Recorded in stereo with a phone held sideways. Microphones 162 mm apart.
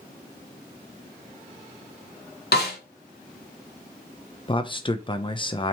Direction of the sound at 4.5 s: 30° left (ahead or behind).